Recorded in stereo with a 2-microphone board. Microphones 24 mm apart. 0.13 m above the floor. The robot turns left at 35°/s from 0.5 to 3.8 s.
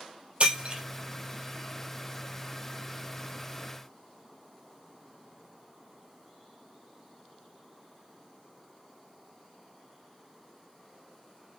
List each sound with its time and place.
0.4 s breaking glass: 45° right (ahead or behind), 2.5 m; by 0.8 s 35° right (ahead or behind), 2.5 m